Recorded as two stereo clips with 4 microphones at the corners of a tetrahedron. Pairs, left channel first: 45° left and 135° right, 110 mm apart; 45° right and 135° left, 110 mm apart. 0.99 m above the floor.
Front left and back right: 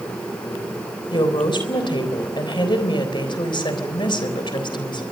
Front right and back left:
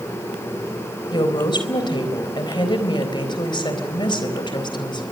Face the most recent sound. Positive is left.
turn(degrees=0)